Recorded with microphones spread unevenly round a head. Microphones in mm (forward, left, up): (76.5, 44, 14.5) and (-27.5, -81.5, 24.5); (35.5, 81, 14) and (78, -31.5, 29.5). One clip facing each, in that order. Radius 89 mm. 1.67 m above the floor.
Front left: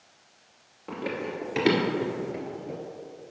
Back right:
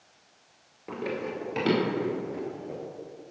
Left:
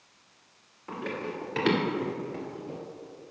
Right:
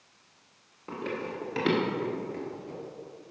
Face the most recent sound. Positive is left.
turn(degrees=35)